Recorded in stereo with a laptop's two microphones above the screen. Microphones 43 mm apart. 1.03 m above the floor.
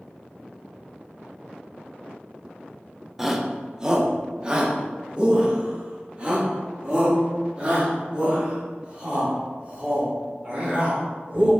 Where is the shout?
5° right (ahead or behind), 0.8 m; by 11.5 s 30° right (ahead or behind), 5 m.